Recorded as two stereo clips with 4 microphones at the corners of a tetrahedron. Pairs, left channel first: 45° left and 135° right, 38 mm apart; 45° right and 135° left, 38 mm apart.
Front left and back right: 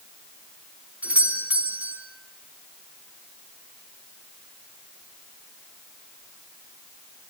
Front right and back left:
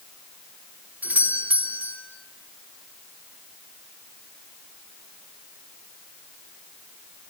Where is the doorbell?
175° left, 3.5 m.